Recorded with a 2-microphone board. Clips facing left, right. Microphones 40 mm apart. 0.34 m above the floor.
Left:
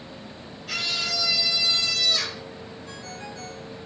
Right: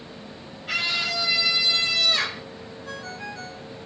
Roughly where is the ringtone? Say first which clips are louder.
Right 6 dB; right.